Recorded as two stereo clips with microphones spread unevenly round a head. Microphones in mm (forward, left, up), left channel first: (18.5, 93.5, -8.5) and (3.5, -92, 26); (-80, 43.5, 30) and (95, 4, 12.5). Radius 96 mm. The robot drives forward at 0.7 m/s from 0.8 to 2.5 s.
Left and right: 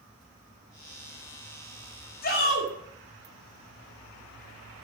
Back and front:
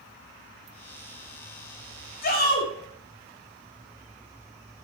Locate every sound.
2.2 s a shout: 130° left, 5.5 m; by 2.7 s 135° left, 6 m